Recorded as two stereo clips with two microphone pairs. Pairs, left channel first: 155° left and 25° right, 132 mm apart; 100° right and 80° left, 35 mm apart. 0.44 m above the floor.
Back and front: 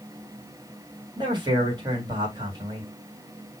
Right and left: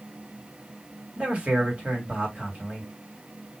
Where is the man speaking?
30° left, 2.5 m.